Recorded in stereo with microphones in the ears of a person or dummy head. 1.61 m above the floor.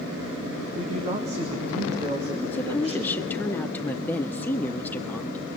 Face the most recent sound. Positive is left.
turn(degrees=10)  # may be behind; listen again after turning